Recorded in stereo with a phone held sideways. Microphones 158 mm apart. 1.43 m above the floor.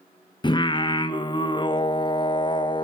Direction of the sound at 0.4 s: 30° left (ahead or behind).